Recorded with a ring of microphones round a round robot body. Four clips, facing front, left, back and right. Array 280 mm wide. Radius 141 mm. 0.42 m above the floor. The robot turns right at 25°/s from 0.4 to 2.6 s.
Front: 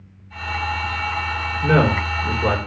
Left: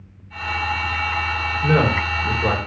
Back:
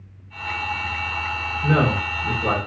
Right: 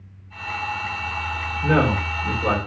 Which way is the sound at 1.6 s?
5° left.